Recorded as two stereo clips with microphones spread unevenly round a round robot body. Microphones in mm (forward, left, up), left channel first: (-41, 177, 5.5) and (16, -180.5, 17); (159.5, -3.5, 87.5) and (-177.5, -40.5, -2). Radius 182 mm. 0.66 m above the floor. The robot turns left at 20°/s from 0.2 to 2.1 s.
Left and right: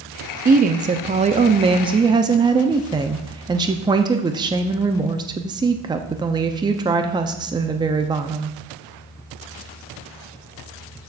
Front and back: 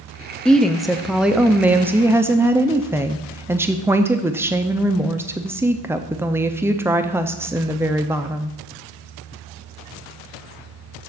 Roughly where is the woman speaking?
Behind right.